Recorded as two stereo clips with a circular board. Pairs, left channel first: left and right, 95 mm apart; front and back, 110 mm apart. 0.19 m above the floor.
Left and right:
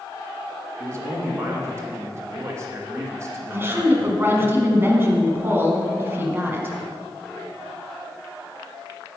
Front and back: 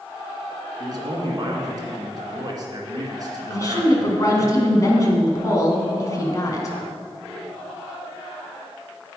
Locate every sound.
0.8 s a man speaking: 140° right, 2.0 m
3.5 s a woman speaking: 35° right, 1.5 m